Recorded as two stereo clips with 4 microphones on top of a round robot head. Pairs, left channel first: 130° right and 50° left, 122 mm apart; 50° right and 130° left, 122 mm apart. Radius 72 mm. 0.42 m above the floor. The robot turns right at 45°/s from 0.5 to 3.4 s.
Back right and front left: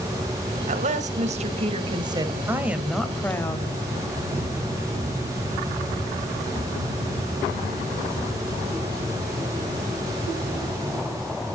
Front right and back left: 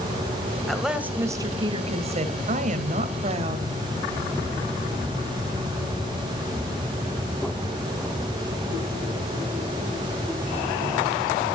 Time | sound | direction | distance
0.7 | a woman speaking | 35° left | 2.5 m